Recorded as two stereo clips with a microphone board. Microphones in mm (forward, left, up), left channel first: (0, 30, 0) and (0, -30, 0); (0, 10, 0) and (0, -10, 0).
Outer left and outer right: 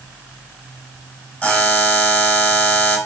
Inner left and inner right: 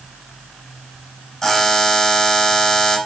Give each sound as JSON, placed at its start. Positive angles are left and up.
{"t": 1.4, "sound": "a buzzer", "side_deg": 20, "distance_m": 3.5}